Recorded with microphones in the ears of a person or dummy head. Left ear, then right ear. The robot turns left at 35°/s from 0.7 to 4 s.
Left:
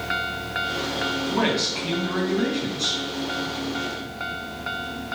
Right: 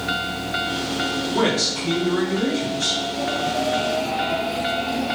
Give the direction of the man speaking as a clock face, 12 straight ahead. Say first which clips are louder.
Right 4 dB; 7 o'clock.